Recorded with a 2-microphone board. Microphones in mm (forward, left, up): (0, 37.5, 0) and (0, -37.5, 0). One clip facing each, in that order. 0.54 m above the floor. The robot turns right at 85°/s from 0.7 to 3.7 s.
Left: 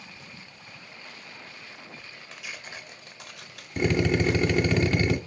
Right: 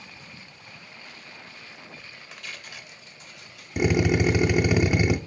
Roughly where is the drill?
Centre.